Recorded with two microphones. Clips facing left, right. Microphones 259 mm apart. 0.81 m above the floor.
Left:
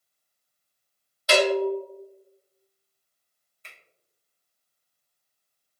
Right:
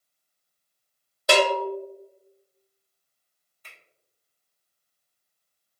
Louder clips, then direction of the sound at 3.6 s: Left 1 dB; 25° left (ahead or behind).